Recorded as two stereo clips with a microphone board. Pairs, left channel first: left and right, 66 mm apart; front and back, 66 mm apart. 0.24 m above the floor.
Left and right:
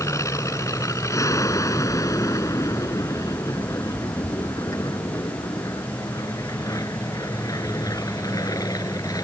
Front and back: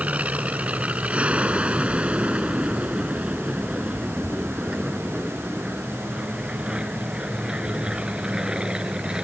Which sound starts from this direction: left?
An aircraft, at 0.0 s.